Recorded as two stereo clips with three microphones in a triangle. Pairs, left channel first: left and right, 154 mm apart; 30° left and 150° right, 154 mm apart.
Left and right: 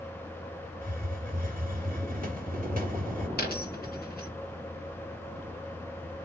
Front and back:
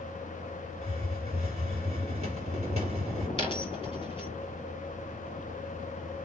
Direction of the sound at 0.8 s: 105° right.